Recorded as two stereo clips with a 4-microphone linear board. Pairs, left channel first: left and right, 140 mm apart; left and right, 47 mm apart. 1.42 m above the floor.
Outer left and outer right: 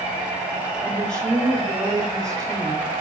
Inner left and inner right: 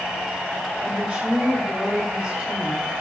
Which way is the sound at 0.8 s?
25° right (ahead or behind).